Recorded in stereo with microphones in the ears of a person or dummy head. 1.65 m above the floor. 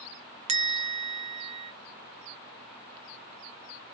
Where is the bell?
35° right (ahead or behind), 0.6 m.